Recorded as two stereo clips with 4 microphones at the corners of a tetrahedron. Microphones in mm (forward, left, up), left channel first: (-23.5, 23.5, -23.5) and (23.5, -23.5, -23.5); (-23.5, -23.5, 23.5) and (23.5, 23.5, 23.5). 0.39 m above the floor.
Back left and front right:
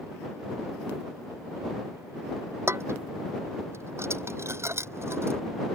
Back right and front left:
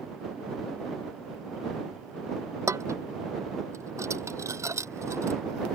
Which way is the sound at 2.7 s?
5° left.